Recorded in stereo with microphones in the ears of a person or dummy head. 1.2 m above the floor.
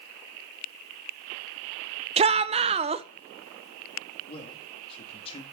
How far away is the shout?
About 0.7 m.